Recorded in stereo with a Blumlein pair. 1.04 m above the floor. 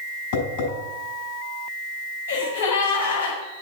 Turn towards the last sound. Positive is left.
turn(degrees=70)